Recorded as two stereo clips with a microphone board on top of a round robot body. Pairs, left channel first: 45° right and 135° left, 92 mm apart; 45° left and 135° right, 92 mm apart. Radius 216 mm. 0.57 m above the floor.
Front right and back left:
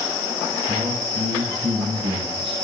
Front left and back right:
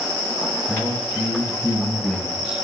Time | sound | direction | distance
0.7 | a man speaking | 120° left | 6 m